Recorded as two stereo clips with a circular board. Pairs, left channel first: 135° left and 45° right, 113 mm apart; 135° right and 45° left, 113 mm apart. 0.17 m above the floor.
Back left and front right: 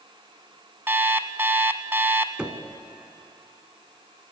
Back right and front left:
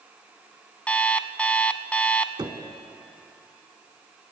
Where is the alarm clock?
75° right, 0.9 m.